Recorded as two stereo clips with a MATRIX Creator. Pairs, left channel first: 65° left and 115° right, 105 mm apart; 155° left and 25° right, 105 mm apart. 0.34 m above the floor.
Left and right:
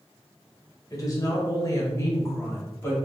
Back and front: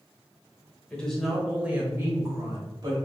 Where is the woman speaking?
85° left, 1.2 m; by 3.0 s 10° left, 1.5 m.